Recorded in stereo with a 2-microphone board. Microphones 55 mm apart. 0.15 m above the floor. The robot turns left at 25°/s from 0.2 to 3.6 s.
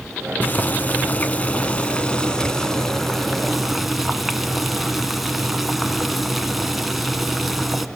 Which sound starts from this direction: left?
Boiling, at 0.4 s.